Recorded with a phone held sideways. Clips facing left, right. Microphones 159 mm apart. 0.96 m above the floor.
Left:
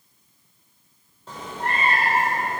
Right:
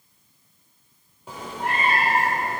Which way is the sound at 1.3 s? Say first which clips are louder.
Even; 10° right (ahead or behind).